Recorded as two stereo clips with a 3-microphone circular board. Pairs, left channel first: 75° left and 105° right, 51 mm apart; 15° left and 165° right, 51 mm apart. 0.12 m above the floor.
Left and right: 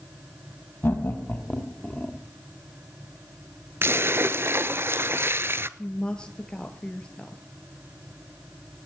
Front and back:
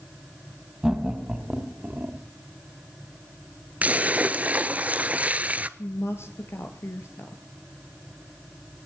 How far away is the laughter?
About 3 m.